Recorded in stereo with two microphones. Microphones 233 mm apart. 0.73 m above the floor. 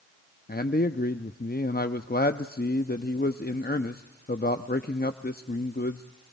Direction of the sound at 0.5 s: 40° left (ahead or behind).